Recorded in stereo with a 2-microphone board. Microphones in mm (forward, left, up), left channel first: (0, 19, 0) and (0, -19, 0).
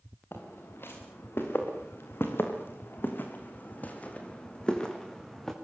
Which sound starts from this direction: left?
Footsteps, at 0.3 s.